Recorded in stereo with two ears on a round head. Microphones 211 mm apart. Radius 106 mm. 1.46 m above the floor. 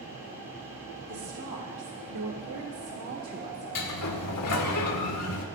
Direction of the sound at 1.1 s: 65° right (ahead or behind).